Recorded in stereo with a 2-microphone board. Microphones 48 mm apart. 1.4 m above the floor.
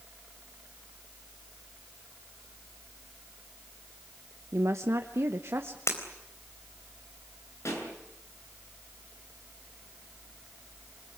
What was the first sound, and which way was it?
A woman speaking, 75° right (ahead or behind).